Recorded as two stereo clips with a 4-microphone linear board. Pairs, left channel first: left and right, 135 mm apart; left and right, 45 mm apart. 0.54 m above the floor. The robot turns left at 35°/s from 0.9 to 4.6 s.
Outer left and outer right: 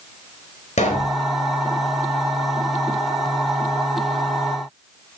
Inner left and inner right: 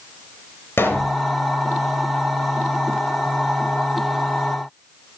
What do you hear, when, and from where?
0.8 s a pop: 60° left (ahead or behind), 4 m; by 1.2 s 55° left (ahead or behind), 4 m